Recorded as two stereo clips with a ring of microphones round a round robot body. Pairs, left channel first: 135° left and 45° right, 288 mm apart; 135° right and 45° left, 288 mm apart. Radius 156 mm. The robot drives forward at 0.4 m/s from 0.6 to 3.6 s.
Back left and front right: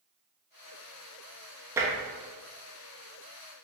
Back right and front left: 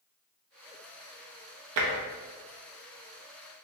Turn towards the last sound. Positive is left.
turn(degrees=110)